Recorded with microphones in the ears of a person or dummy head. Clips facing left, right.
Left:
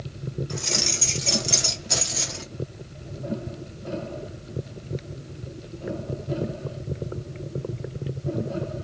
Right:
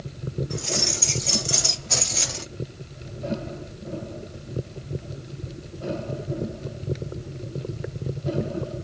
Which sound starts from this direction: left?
Keys jangling, at 0.5 s.